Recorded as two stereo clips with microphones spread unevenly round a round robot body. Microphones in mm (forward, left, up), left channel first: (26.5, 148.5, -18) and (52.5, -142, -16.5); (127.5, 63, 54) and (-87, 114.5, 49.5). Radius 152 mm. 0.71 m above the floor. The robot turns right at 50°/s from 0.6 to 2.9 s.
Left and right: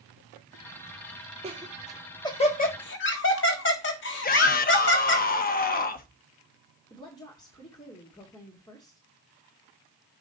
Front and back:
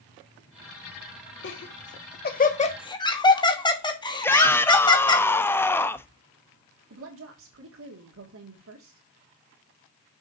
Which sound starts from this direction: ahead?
Laughter, at 1.4 s.